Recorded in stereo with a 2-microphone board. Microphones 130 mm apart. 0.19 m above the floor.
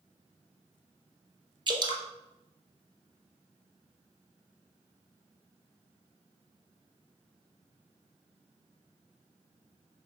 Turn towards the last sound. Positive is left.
turn(degrees=-35)  # may be behind; listen again after turning